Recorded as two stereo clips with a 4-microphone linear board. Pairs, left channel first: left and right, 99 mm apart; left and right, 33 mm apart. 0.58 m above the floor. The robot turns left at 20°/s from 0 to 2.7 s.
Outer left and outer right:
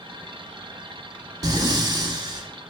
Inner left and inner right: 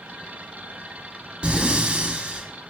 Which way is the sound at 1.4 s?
40° right (ahead or behind).